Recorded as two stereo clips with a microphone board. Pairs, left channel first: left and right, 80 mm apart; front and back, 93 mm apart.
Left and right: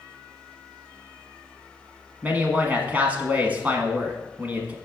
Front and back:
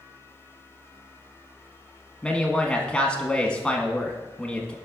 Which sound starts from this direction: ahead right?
A man speaking, at 2.2 s.